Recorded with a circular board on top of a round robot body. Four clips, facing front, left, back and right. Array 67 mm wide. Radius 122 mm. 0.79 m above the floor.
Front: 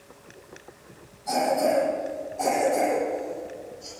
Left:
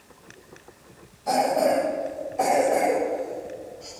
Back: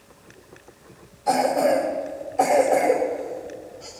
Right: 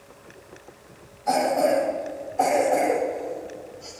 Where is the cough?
160° left, 4 m.